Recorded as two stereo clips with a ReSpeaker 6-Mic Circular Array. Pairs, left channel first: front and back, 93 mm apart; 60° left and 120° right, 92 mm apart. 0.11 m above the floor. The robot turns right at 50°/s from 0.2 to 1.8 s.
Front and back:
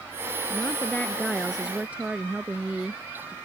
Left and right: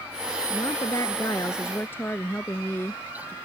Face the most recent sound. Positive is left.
turn(degrees=110)